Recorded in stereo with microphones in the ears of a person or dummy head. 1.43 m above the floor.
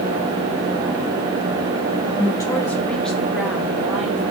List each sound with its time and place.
2.1 s a woman speaking: 25° left (ahead or behind), 0.8 m; by 4.2 s 5° right (ahead or behind), 1.8 m